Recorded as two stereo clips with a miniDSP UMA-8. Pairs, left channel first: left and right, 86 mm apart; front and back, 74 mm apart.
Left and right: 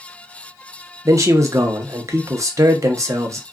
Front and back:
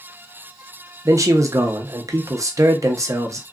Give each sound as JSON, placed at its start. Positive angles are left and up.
{"t": 1.1, "sound": "a man speaking", "azimuth_deg": -140, "distance_m": 0.7}